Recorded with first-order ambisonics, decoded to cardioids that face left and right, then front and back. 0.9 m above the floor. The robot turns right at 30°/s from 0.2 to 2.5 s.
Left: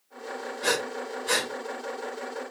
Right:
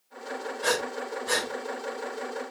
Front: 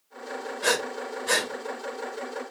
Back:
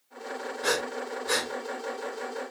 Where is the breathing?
Straight ahead, 1.4 m; by 2.5 s 60° left, 1.4 m.